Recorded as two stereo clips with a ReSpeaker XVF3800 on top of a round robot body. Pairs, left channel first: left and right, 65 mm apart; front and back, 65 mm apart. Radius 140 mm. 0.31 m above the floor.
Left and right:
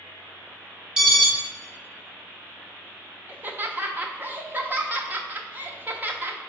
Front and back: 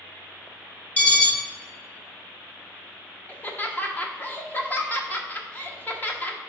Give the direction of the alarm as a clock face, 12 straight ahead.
1 o'clock.